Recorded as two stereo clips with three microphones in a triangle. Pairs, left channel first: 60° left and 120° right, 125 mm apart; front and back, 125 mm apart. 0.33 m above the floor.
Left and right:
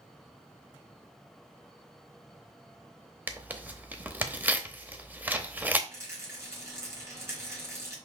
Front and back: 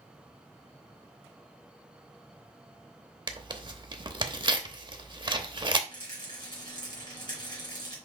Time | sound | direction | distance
3.3 | tearing paper | 175° left | 0.8 m
5.9 | a rattle | 55° right | 2.5 m